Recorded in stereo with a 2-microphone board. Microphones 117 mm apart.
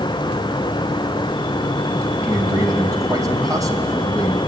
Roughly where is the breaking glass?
No breaking glass in this recording.